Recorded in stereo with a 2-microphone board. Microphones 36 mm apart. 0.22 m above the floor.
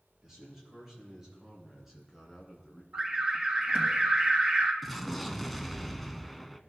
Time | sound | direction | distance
0.2 | a man speaking | 10° right (ahead or behind) | 5 m
2.9 | an alarm | 25° right (ahead or behind) | 2.5 m
4.8 | an explosion | centre (ahead or behind) | 0.7 m